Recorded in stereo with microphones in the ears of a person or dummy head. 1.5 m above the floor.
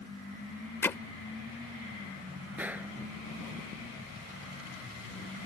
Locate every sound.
0.8 s hammering: 10° left (ahead or behind)
2.6 s a gunshot: 10° right (ahead or behind)